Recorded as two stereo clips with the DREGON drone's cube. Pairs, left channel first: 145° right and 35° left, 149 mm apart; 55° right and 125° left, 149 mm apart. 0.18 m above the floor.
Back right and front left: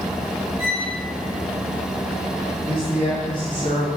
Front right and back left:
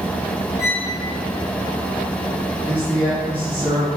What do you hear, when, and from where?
0.6 s a violin: 10° right, 1.8 m
2.7 s a man speaking: 165° right, 1.3 m